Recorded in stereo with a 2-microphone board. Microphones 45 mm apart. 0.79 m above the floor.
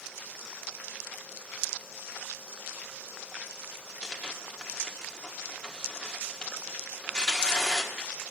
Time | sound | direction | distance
4.0 | tearing paper | 15° left (ahead or behind) | 1.3 m